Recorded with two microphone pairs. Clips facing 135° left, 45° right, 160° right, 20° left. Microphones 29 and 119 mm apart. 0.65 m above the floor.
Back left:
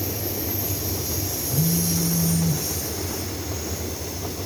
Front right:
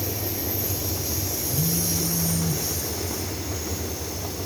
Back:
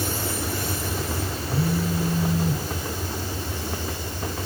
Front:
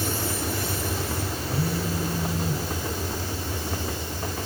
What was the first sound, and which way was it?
A phone buzzing, 130° left.